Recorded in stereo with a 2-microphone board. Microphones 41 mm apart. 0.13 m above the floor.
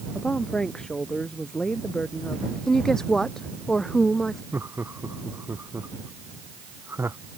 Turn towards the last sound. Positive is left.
turn(degrees=-85)